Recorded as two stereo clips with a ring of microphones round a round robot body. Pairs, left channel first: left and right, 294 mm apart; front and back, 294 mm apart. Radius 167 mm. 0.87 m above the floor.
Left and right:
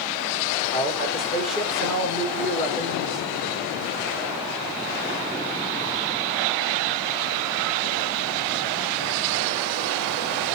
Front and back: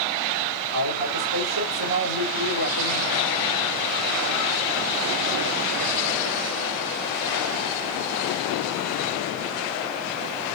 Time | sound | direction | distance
0.7 | a man speaking | straight behind | 4 m